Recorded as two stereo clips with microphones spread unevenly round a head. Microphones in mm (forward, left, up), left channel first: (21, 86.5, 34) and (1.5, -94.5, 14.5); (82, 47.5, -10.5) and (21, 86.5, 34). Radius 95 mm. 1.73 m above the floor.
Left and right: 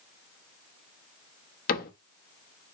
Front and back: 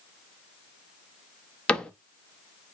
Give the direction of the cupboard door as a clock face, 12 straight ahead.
10 o'clock.